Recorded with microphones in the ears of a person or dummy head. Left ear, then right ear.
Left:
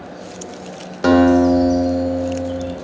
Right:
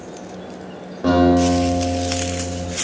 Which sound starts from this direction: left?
A guitar, at 1.0 s.